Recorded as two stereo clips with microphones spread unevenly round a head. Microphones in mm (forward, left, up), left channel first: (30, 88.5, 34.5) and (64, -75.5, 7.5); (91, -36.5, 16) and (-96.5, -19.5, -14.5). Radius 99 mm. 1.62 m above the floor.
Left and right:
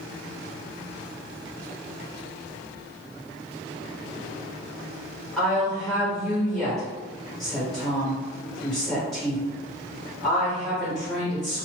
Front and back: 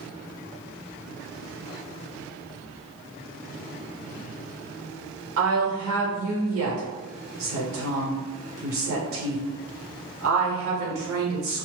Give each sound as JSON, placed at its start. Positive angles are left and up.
{"t": 5.4, "sound": "a woman speaking", "azimuth_deg": -170, "distance_m": 1.0}